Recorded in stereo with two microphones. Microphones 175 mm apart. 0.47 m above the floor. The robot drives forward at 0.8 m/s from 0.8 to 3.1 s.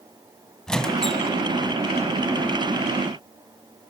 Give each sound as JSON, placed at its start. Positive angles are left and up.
{"t": 0.7, "sound": "a squeak", "side_deg": 5, "distance_m": 1.0}